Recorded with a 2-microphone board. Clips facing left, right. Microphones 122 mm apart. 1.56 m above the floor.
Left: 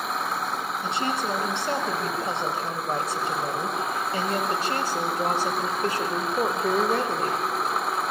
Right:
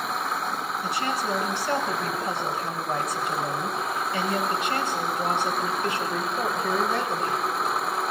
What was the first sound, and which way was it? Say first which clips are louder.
A woman speaking: left 1 dB; 25° left (ahead or behind).